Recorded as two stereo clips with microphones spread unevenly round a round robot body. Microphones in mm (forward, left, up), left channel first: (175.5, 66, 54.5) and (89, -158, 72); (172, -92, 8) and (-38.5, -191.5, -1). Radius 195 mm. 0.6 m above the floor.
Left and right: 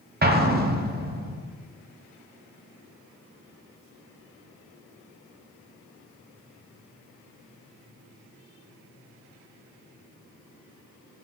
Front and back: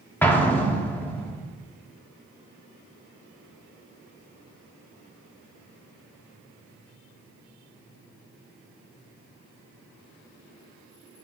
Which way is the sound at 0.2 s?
60° right.